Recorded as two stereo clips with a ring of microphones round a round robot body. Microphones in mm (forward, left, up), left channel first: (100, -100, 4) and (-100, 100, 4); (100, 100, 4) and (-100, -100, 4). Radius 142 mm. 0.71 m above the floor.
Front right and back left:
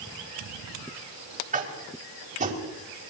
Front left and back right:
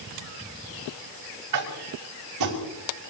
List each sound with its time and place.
1.5 s tapping: 160° right, 5.5 m